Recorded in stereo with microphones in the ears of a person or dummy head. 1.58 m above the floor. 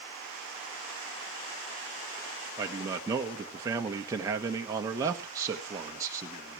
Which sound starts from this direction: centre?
A man speaking, at 2.6 s.